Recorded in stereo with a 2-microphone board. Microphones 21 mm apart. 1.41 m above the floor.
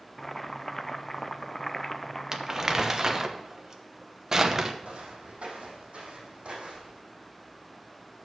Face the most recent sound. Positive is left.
turn(degrees=-65)  # may be behind; listen again after turning